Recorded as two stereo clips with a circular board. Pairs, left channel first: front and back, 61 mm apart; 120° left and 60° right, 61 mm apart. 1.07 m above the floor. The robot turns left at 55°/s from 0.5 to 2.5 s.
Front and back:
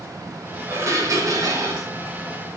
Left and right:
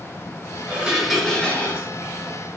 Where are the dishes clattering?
125° right, 4 m; by 1.9 s 170° left, 4 m.